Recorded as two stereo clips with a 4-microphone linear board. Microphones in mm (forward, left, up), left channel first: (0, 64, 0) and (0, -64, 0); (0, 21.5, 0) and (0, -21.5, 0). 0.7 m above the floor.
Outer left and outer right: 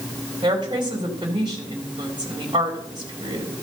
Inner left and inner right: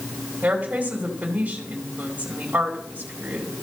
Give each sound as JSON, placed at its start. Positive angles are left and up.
{"t": 0.4, "sound": "a woman speaking", "side_deg": -40, "distance_m": 2.5}